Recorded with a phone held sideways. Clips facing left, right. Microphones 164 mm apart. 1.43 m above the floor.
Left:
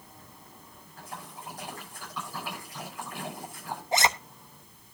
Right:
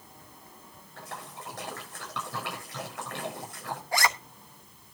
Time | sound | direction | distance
1.0 | a splash | 75° right (ahead or behind) | 8.5 m
3.9 | a zipper | 20° left (ahead or behind) | 0.9 m